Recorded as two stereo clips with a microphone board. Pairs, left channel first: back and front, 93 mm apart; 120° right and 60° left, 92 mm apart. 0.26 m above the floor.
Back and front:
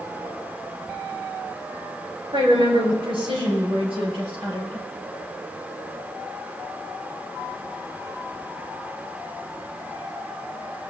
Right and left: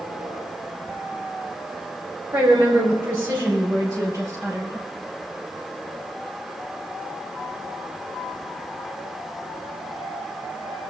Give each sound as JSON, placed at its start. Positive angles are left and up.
{"t": 2.3, "sound": "a woman speaking", "azimuth_deg": -10, "distance_m": 4.0}